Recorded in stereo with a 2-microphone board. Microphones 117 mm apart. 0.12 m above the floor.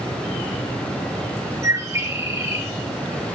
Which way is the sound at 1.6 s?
25° right (ahead or behind).